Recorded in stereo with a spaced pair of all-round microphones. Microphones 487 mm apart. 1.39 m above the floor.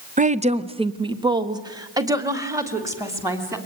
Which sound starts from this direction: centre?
A woman speaking, at 0.2 s.